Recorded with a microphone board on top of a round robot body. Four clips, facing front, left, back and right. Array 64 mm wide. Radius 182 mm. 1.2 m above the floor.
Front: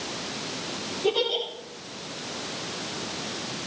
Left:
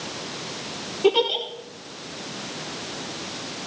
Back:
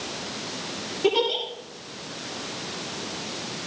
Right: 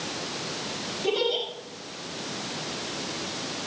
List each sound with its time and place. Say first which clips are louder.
1.0 s a giggle: left 6 dB, back 3 dB; 120° left, 9.5 m